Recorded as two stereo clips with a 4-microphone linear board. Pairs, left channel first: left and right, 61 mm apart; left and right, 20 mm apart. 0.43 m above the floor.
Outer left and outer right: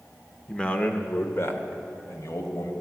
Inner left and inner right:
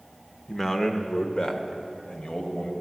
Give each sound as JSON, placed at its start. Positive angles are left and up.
{"t": 0.5, "sound": "a man speaking", "side_deg": 10, "distance_m": 0.7}